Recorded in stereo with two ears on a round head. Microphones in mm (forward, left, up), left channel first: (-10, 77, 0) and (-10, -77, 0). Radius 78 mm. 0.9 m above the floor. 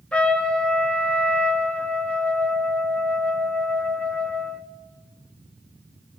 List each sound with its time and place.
0.1 s a trumpet: 5° left (ahead or behind), 1.0 m